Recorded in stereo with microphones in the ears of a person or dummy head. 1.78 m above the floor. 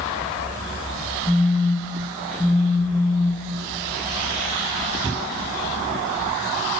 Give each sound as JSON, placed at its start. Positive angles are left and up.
{"t": 1.3, "sound": "a phone buzzing", "side_deg": 10, "distance_m": 3.0}